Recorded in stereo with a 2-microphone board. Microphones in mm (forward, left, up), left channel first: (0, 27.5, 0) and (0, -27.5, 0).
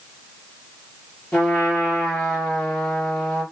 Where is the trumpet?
15° left (ahead or behind), 4.5 m.